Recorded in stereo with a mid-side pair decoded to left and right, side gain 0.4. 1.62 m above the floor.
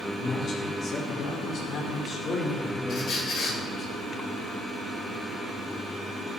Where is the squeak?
65° left, 4.5 m.